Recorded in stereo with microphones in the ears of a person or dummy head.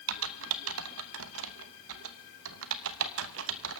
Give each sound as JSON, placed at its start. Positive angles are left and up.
{"t": 0.1, "sound": "typing on a keyboard", "side_deg": -80, "distance_m": 0.8}